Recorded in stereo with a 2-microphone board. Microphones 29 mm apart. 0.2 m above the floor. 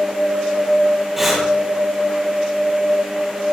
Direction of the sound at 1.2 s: 10° right (ahead or behind).